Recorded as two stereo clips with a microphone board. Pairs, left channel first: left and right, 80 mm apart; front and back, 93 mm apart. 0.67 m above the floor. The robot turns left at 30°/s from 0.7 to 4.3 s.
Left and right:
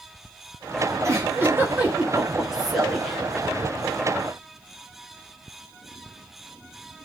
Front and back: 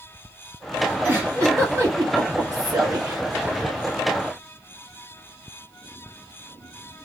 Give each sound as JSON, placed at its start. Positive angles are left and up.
{"t": 1.0, "sound": "a giggle", "azimuth_deg": -125, "distance_m": 1.5}